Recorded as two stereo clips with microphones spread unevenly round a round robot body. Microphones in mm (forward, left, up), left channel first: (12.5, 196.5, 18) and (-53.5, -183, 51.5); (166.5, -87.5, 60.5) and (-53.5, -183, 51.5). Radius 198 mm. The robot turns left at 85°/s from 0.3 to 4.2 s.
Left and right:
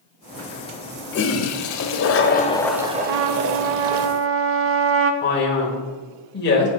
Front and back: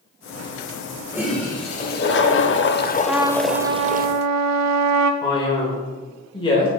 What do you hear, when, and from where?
1.1 s a toilet flushing: 130° left, 0.7 m; by 4.1 s 120° right, 0.7 m
3.1 s a trumpet: 65° right, 0.5 m; by 5.1 s 160° right, 0.5 m
5.2 s a man speaking: 75° left, 1.5 m